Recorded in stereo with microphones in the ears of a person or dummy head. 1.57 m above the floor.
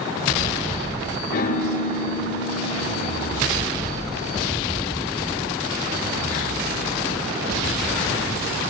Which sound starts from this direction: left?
A piano, at 1.3 s.